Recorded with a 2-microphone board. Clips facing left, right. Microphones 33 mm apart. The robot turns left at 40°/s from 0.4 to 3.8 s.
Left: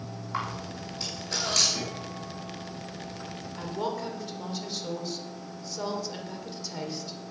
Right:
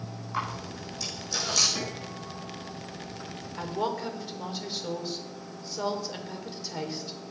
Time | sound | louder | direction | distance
0.3 | a camera shutter | even | 10° left (ahead or behind) | 7 m
1.8 | a guitar | even | 160° right | 4.5 m
3.6 | a woman speaking | right 2 dB | 20° right (ahead or behind) | 2 m